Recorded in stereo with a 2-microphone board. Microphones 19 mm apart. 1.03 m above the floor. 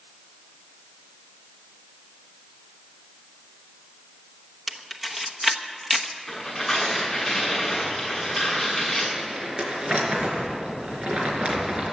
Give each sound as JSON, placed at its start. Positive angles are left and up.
{"t": 4.7, "sound": "a camera shutter", "side_deg": -5, "distance_m": 1.0}
{"t": 6.3, "sound": "tearing paper", "side_deg": 5, "distance_m": 6.5}
{"t": 9.2, "sound": "crumpling", "side_deg": -60, "distance_m": 4.0}